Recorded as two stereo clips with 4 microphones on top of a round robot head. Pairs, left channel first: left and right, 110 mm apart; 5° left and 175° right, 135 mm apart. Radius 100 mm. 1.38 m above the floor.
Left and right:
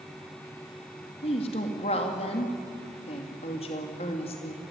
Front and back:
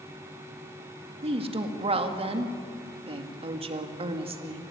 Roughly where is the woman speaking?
Behind left.